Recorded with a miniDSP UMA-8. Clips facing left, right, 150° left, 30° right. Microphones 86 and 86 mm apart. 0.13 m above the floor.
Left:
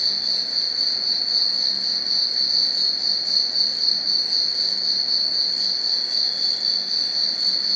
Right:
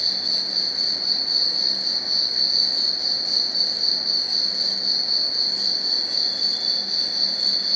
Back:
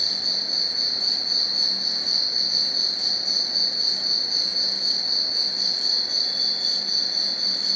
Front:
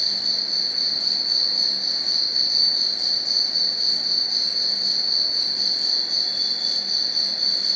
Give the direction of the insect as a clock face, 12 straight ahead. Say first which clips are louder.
Right 1 dB, even; 7 o'clock.